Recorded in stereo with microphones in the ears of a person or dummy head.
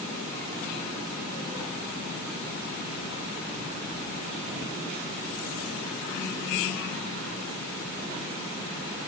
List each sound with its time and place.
Only background noise.